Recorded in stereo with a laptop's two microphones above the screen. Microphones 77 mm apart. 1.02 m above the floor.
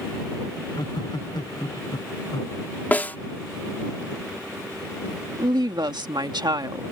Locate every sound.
0.6 s laughter: 70° left (ahead or behind); by 2.6 s 65° left (ahead or behind)
2.9 s a snare drum: 25° left (ahead or behind)
5.4 s a woman speaking: 75° right (ahead or behind)